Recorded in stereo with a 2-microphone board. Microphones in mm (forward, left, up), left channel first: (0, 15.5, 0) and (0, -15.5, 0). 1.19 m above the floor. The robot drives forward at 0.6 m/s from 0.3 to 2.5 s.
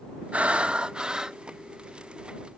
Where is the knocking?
No knocking in this recording.